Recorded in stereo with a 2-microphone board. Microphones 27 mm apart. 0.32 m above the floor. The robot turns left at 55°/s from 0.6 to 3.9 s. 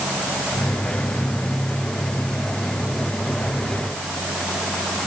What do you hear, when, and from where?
Only background noise.